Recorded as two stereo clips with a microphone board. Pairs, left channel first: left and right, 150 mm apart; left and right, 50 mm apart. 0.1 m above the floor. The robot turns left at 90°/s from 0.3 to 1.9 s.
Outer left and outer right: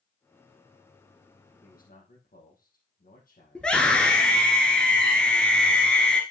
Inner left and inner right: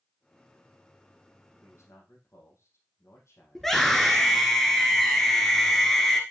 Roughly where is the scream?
Centre.